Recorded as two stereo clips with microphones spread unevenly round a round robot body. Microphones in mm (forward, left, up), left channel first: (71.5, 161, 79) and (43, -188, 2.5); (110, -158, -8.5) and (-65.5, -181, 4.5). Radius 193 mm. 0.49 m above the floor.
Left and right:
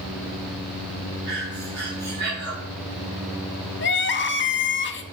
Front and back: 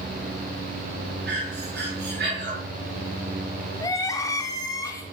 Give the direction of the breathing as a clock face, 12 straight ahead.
5 o'clock.